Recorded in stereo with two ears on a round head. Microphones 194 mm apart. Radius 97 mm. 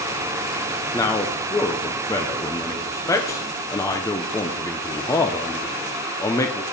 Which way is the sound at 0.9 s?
15° left (ahead or behind).